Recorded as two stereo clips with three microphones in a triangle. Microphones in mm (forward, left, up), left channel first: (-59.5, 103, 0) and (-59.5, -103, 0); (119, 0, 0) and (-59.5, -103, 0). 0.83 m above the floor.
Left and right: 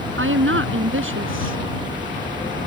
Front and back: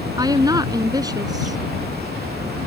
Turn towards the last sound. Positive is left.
turn(degrees=-80)